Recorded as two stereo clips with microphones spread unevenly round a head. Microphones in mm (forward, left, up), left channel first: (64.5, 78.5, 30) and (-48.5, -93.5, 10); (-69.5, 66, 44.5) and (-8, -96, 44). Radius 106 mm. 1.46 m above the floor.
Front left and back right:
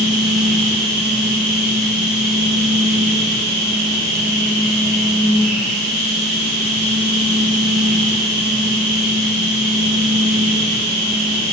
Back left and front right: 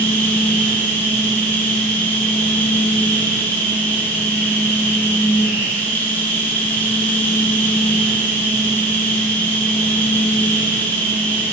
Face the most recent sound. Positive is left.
turn(degrees=-170)